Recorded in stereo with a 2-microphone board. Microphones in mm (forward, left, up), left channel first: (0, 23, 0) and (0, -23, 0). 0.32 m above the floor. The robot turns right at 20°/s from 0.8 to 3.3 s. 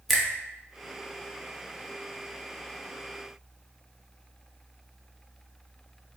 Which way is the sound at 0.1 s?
Centre (ahead or behind).